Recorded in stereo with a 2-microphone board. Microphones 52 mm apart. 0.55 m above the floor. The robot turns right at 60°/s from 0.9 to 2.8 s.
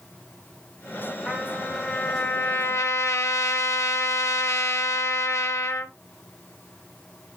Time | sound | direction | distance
1.3 | a trumpet | 15° right | 1.0 m